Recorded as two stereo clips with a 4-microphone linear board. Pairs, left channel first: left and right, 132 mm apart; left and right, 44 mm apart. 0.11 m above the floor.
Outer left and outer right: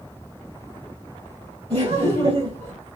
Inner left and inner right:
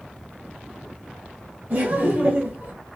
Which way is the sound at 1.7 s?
50° right (ahead or behind).